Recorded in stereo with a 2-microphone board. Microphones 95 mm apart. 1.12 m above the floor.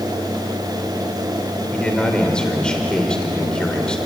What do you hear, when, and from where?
1.7 s a man speaking: 10° left (ahead or behind), 3 m